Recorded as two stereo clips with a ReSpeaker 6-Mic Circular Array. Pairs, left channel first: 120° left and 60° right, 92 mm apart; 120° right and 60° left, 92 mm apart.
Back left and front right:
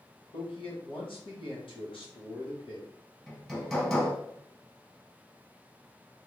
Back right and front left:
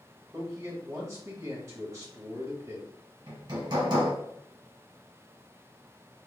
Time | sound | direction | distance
0.3 | a man speaking | 115° left | 1.6 m
3.3 | hammering | 35° left | 1.3 m